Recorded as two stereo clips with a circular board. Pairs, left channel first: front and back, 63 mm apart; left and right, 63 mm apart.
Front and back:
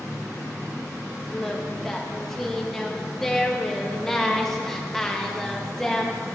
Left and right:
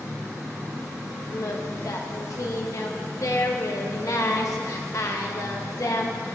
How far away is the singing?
About 1.0 m.